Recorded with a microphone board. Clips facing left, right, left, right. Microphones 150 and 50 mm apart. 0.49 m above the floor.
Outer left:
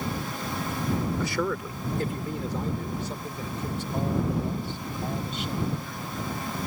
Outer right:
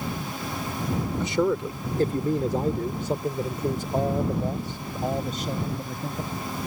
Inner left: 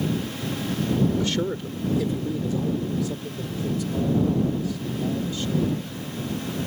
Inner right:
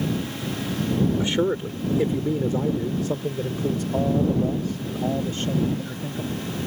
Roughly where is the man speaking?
Right.